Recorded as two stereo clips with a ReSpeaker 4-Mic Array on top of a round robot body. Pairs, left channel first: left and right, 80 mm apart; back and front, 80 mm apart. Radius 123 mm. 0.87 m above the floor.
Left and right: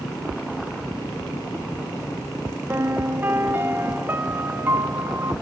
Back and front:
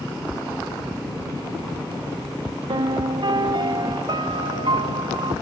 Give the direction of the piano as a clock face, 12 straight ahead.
1 o'clock.